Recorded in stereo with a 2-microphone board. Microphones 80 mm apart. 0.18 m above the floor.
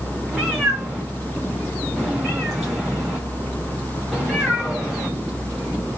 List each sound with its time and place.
0.3 s a cat meowing: 5° right (ahead or behind), 9 m